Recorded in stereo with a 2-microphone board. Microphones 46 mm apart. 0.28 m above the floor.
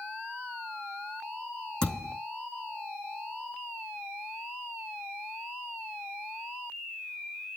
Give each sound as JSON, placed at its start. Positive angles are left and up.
{"t": 1.8, "sound": "a thud", "side_deg": 15, "distance_m": 5.5}